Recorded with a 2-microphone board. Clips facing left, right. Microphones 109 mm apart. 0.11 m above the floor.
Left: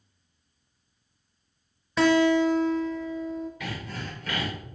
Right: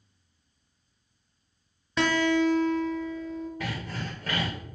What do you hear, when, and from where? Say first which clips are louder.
2.0 s a guitar: left 4 dB; centre (ahead or behind), 0.8 m
3.6 s sawing: right 1 dB; 40° right (ahead or behind), 2.5 m